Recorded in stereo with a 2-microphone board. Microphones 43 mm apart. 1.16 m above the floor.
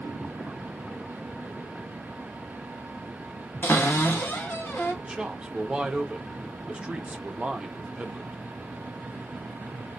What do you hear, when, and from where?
3.6 s a cupboard door: 75° left (ahead or behind), 1.3 m
5.0 s a man speaking: 25° right (ahead or behind), 0.6 m